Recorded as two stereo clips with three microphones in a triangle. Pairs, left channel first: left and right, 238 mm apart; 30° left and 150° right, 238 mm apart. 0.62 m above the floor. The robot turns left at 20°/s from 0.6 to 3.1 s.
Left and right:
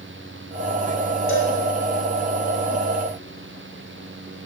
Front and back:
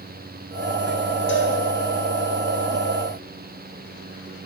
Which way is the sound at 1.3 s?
65° left.